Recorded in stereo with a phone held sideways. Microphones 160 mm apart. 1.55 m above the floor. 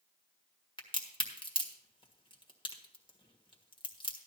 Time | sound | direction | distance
0.8 | a crack | 30° left (ahead or behind) | 1.5 m